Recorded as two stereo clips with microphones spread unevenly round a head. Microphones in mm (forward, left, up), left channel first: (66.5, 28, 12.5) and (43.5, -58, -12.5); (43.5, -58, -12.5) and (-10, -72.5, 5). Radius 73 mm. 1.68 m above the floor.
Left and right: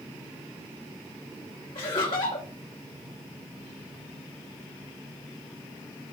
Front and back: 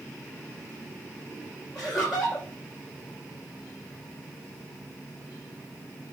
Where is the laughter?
105° left, 1.2 m.